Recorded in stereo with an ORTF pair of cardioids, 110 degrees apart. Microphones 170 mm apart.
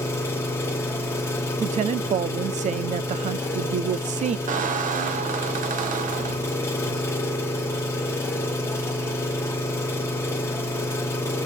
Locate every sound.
0.0 s an engine running: 15° left, 2 m
1.6 s a woman speaking: 45° right, 0.8 m
4.5 s a squeak: 50° right, 1.3 m